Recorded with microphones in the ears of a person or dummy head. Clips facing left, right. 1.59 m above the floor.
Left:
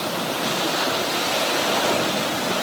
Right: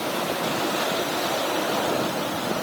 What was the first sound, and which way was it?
Only background noise.